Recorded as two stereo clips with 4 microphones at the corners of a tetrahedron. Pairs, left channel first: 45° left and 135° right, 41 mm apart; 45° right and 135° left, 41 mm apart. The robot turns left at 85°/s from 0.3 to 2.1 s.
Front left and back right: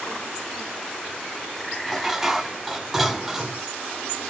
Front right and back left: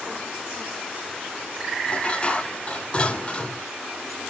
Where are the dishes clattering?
35° right, 0.9 m; by 3.6 s 55° right, 0.9 m.